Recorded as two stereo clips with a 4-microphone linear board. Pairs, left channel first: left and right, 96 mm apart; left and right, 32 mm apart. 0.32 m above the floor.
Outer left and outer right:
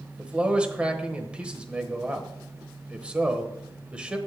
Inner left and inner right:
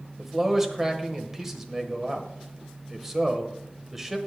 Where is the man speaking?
10° right (ahead or behind), 1.0 m.